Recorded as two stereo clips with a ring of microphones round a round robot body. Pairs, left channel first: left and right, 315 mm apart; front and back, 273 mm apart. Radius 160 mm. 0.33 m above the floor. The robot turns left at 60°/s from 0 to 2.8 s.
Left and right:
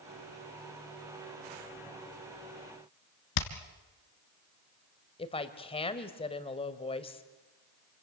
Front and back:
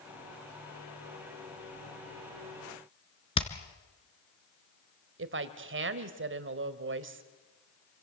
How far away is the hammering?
About 2.5 m.